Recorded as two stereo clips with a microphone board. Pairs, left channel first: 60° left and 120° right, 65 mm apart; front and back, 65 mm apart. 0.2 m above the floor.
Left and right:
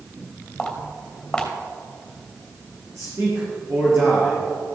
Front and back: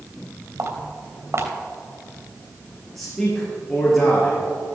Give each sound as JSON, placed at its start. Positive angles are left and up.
{"t": 0.6, "sound": "footsteps", "azimuth_deg": 140, "distance_m": 3.0}
{"t": 3.0, "sound": "a man speaking", "azimuth_deg": -85, "distance_m": 4.5}